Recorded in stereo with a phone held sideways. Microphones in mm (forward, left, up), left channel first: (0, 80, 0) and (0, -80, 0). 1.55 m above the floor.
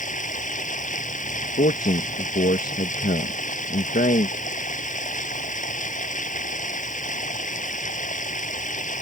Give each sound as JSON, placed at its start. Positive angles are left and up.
{"t": 0.0, "sound": "running water", "side_deg": 55}
{"t": 1.6, "sound": "a man speaking", "side_deg": 65}